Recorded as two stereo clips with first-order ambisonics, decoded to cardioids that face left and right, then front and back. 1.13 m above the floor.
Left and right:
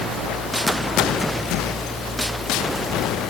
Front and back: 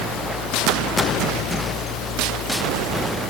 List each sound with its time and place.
Only background noise.